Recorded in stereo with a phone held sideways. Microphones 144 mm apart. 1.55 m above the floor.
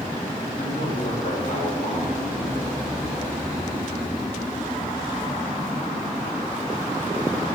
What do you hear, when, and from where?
0.6 s a man speaking: 70° left (ahead or behind), 3.5 m